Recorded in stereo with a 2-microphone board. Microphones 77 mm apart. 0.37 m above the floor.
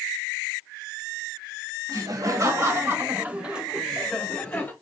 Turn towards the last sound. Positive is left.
turn(degrees=20)  # may be behind; listen again after turning